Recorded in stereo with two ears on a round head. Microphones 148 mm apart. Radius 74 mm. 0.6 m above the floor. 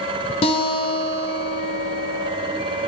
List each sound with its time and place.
0.4 s a guitar: 35° left (ahead or behind), 0.6 m